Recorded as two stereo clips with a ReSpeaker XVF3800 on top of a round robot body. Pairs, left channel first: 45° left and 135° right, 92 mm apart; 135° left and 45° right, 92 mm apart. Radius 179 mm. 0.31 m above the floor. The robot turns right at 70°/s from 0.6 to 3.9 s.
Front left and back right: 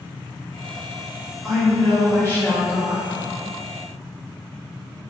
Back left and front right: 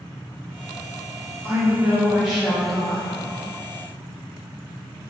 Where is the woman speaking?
35° right, 1.4 m; by 3.2 s 85° left, 1.4 m.